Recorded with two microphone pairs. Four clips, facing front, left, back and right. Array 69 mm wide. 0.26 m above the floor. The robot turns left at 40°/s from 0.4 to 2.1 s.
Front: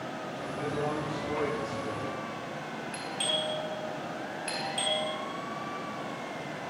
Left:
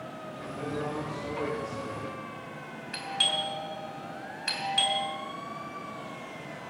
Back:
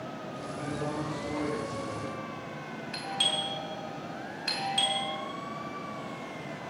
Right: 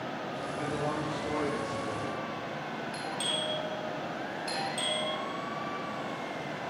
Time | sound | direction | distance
0.6 | a man speaking | 55° right | 7.5 m
2.9 | a doorbell | 115° left | 4 m